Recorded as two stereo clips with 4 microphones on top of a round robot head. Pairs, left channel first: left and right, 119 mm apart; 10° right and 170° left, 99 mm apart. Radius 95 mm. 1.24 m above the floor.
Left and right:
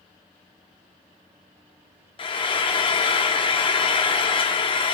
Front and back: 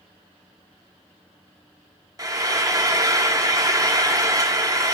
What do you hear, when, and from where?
2.2 s frying: 125° left, 0.6 m